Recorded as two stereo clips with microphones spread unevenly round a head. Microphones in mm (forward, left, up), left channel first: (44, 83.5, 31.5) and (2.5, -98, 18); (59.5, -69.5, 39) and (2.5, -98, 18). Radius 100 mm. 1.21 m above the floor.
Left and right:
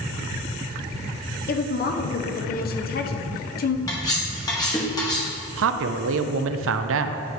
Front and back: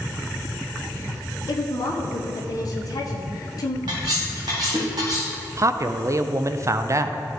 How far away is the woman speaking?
About 0.8 m.